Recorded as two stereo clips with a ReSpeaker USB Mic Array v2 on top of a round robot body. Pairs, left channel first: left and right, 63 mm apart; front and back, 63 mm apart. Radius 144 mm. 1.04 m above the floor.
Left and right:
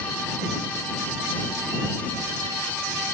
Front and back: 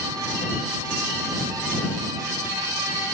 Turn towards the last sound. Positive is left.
No sound to turn to.